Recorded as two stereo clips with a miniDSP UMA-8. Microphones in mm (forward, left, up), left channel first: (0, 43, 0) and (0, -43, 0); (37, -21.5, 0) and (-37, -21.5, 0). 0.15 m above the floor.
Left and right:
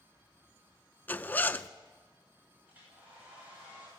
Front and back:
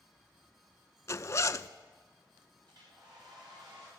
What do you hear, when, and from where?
1.1 s a zipper: 30° left, 0.5 m
2.7 s a hair dryer: 160° right, 10 m